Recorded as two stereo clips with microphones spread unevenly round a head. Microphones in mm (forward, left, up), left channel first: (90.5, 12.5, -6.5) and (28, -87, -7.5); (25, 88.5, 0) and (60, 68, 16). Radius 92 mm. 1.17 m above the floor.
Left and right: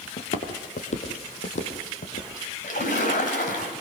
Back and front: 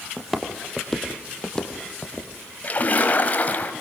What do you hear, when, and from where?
0.2 s footsteps: 45° left, 2.5 m; by 2.3 s 75° left, 3.5 m
2.6 s a splash: 95° left, 3.5 m